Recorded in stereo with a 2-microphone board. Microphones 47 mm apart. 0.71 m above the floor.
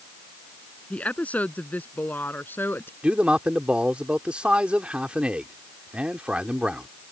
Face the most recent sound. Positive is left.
turn(degrees=-25)  # may be behind; listen again after turning